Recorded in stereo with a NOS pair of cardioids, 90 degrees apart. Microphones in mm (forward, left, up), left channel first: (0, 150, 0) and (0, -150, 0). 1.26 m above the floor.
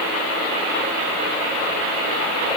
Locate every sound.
Only background noise.